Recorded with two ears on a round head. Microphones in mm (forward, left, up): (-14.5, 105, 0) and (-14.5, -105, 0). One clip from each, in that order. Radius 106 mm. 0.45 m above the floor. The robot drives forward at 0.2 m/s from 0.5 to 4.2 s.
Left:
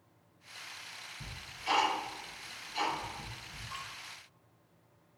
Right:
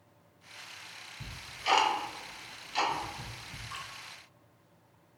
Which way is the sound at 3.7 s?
10° right (ahead or behind).